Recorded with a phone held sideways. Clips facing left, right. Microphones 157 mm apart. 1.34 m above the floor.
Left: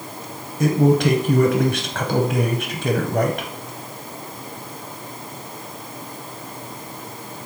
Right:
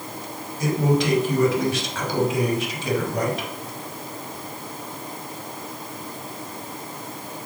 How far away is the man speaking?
About 0.6 m.